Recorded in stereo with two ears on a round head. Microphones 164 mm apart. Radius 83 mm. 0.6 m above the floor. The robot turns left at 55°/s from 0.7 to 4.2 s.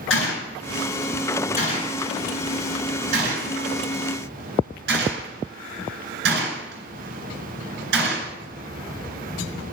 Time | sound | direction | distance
0.1 | a gunshot | 75° left (ahead or behind) | 4 m